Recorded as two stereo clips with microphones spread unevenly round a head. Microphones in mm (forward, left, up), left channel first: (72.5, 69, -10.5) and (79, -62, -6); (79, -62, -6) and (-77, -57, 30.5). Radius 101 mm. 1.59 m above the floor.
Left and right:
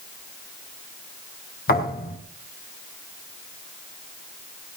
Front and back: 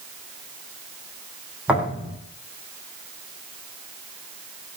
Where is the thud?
95° left, 5.5 m.